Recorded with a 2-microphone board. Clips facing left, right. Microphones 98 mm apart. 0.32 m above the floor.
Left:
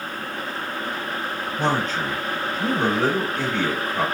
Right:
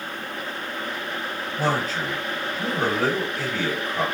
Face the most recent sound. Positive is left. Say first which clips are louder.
# left 1 dB
turn(degrees=-5)  # may be behind; listen again after turning